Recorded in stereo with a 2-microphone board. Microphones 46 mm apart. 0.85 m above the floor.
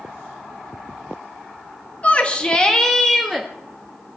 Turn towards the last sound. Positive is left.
turn(degrees=0)  # may be behind; listen again after turning